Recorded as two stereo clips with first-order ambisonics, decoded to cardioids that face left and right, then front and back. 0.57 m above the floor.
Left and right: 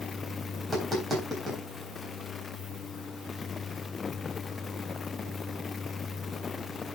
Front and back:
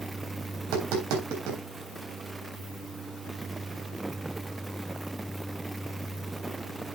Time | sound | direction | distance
0.6 | tapping | 175° right | 3.5 m